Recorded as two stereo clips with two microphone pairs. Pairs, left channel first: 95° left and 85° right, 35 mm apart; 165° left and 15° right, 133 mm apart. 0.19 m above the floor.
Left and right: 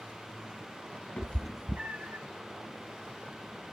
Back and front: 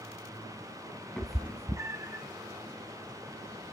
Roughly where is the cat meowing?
Left.